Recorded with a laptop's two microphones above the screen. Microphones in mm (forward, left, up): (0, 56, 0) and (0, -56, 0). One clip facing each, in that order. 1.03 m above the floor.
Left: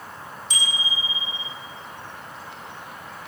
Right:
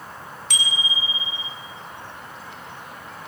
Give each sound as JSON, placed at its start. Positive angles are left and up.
{"t": 0.5, "sound": "a bicycle bell", "side_deg": -70, "distance_m": 6.5}